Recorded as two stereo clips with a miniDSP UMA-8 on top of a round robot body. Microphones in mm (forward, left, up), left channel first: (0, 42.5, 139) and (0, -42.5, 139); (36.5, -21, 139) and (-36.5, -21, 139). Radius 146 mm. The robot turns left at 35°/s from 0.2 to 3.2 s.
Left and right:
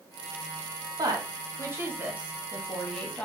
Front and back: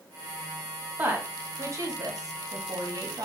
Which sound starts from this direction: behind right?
A woman speaking, at 1.0 s.